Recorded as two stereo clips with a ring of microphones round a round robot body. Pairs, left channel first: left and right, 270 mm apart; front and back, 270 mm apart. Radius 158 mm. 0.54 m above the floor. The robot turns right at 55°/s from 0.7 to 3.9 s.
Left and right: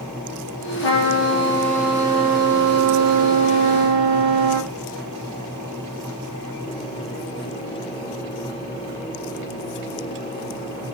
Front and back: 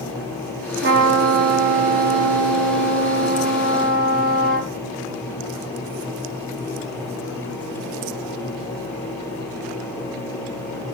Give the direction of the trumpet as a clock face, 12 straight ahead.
8 o'clock.